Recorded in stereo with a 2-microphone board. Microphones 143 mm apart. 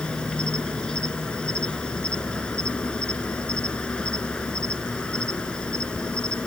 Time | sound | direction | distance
0.0 | an insect | 5° left (ahead or behind) | ?